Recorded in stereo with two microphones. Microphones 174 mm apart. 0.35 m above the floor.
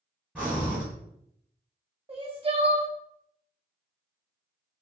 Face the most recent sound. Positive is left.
turn(degrees=-35)  # may be behind; listen again after turning